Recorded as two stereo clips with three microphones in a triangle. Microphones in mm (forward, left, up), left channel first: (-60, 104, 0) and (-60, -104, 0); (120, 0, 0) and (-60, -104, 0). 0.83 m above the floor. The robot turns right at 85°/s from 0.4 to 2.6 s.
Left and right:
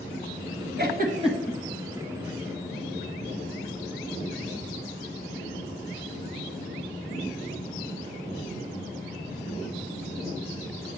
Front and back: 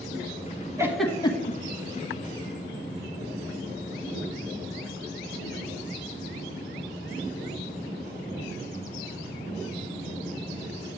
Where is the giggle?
75° right, 1.0 m; by 1.6 s 10° right, 1.0 m.